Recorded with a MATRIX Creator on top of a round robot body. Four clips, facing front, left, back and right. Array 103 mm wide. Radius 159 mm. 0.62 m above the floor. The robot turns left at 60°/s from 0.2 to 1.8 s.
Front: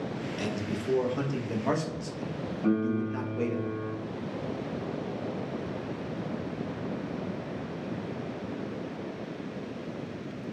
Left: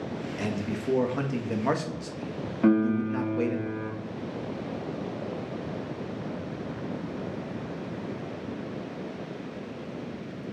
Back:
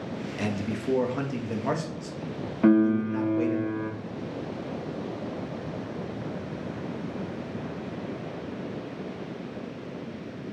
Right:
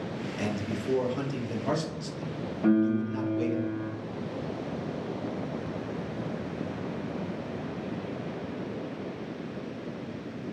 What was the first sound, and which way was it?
A man speaking, 170° left.